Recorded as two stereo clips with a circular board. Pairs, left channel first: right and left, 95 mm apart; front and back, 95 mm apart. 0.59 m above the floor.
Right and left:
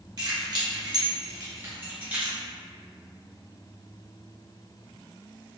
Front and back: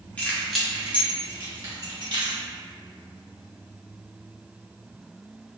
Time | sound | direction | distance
0.2 | keys jangling | 70° left | 0.8 m